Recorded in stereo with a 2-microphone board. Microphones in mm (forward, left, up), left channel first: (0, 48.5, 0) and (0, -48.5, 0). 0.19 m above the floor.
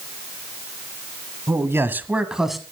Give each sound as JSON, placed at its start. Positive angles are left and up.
{"t": 1.5, "sound": "a man speaking", "side_deg": -30, "distance_m": 1.3}